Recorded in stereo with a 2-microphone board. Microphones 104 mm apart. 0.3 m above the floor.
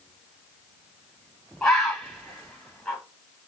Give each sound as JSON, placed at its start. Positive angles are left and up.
{"t": 1.6, "sound": "a bird", "side_deg": 5, "distance_m": 1.8}